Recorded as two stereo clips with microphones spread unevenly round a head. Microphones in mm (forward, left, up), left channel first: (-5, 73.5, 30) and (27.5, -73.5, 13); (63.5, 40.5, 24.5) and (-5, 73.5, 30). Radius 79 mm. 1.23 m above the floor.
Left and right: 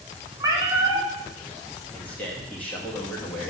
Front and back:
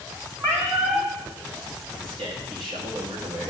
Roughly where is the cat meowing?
Behind right.